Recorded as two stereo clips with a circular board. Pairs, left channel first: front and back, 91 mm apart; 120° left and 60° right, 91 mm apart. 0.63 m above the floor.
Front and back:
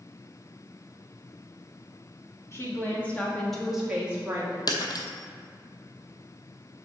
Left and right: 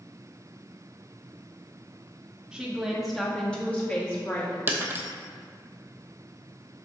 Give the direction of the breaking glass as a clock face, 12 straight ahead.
12 o'clock.